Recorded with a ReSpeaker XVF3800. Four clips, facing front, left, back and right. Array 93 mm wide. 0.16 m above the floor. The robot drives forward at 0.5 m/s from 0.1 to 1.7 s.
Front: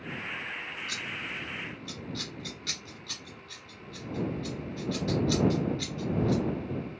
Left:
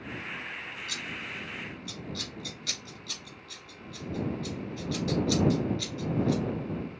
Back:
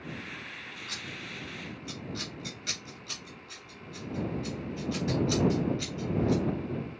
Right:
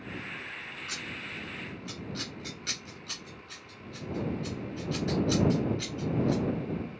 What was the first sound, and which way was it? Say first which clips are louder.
Scissors: left 1 dB, front 3 dB; 90° right.